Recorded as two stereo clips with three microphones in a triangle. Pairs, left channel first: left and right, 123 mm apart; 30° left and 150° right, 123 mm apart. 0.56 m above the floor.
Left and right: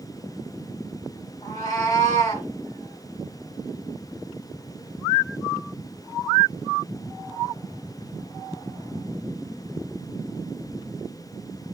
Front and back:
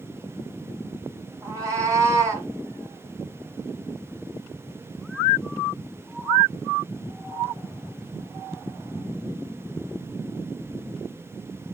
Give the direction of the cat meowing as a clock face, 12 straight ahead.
7 o'clock.